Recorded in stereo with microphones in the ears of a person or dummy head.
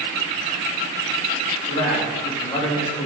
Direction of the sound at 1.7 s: 15° left (ahead or behind).